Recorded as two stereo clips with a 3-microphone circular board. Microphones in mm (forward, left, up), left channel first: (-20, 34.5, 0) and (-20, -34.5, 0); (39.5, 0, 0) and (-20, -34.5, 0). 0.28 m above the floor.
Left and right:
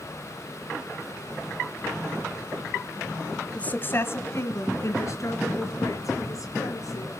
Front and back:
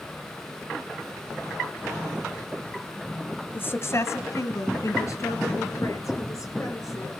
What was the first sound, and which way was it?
A woman speaking, 35° left.